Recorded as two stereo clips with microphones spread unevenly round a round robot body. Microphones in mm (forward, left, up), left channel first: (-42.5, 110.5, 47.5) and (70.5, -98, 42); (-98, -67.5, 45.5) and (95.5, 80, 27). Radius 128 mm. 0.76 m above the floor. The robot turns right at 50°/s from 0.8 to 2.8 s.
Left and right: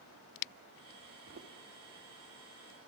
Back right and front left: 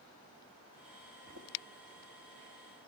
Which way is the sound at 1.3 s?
10° right.